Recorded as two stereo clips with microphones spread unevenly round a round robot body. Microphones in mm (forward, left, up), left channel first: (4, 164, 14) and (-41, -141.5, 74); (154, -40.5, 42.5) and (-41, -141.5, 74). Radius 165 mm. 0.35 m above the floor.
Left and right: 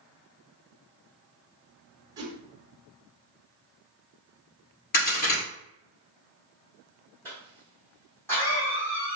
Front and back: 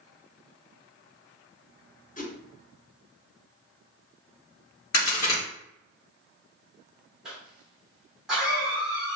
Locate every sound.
2.2 s a whoosh: 15° right, 0.8 m
4.9 s a crack: 45° left, 1.7 m
7.2 s a cough: 100° left, 1.0 m